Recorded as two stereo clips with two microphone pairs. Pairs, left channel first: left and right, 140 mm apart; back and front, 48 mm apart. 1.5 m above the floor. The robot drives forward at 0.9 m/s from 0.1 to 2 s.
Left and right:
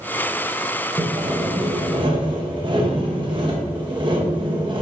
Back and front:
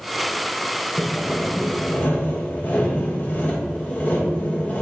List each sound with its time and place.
1.0 s sawing: 55° right, 0.9 m; by 4.8 s 135° right, 1.0 m